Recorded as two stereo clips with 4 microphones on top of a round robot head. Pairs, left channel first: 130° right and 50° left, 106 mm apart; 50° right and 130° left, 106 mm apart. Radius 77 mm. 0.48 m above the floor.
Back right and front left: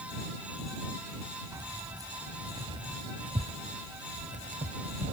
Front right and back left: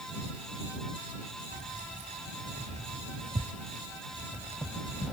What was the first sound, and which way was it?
Keys jangling, 115° left.